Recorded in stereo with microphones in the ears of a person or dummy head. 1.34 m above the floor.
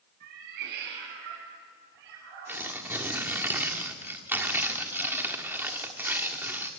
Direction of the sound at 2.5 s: 20° right (ahead or behind).